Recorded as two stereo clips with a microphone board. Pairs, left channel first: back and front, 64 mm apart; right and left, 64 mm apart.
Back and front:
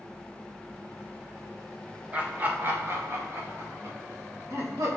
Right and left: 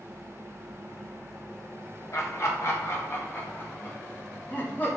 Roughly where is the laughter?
Ahead right.